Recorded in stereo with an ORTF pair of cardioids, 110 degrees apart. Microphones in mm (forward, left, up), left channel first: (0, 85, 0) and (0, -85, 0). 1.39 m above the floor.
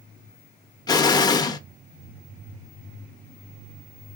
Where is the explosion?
20° left, 0.6 m.